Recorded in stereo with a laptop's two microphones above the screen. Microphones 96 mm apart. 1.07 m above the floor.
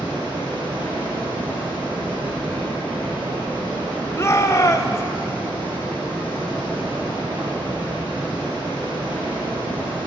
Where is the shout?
30° left (ahead or behind), 0.6 m.